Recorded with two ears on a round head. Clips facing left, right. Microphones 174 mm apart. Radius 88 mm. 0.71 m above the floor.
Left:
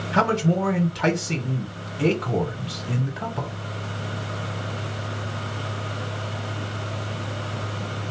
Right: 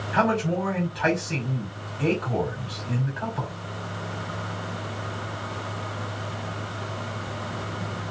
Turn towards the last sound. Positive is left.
turn(degrees=55)  # may be behind; listen again after turning